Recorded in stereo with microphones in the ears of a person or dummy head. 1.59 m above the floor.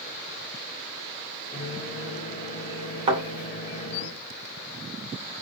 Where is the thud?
25° right (ahead or behind), 2.0 m.